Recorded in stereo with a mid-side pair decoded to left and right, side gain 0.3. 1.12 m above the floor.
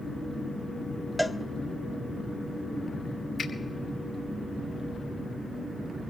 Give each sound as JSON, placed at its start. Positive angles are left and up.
{"t": 1.2, "sound": "a cowbell", "azimuth_deg": -10, "distance_m": 0.6}
{"t": 3.4, "sound": "a finger snap", "azimuth_deg": 55, "distance_m": 2.5}